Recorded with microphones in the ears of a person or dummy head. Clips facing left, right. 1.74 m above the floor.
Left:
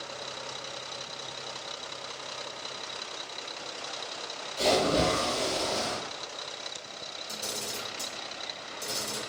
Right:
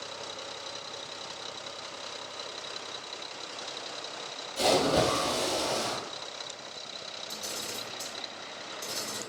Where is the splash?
60° right (ahead or behind), 1.0 m.